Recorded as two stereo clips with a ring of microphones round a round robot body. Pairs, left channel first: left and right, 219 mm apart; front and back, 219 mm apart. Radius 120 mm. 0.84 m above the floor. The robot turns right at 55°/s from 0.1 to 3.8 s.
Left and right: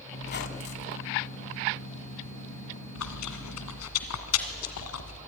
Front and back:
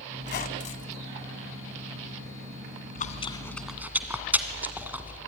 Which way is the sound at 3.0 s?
50° left.